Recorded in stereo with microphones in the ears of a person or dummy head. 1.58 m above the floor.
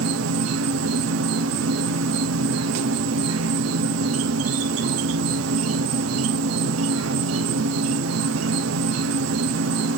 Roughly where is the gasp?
No gasp in this recording.